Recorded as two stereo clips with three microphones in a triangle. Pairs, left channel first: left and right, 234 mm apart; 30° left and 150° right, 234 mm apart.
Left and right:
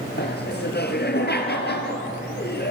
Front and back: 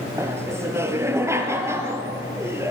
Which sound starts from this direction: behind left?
Laughter, at 0.2 s.